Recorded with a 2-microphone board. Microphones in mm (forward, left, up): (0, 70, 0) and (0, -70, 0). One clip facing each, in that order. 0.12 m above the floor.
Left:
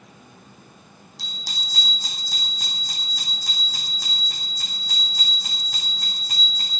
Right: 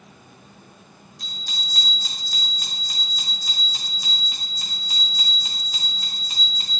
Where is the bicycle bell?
75° left (ahead or behind), 4.5 m; by 6.8 s 60° left (ahead or behind), 7 m.